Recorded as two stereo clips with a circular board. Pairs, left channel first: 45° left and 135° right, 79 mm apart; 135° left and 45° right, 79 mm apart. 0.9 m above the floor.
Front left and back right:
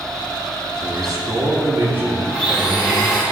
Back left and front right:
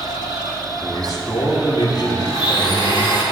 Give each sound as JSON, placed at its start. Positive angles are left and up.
{"t": 0.8, "sound": "a man speaking", "azimuth_deg": 180, "distance_m": 2.0}
{"t": 2.3, "sound": "a blender", "azimuth_deg": 140, "distance_m": 2.5}